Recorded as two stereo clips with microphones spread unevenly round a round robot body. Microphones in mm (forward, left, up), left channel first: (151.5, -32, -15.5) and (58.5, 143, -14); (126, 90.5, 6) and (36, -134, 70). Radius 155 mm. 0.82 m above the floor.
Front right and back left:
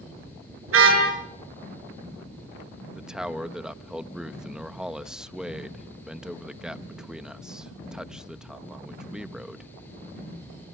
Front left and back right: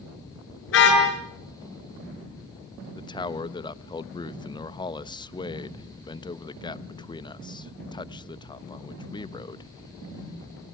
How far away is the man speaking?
About 1.0 m.